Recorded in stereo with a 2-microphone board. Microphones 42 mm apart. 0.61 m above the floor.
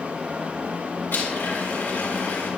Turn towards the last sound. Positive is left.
turn(degrees=60)  # may be behind; listen again after turning